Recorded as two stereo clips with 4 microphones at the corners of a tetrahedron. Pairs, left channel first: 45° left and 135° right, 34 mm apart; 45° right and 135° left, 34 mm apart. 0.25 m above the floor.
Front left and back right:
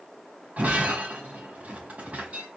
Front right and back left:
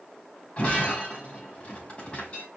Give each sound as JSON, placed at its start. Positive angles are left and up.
{"t": 0.6, "sound": "breaking glass", "azimuth_deg": -100, "distance_m": 5.0}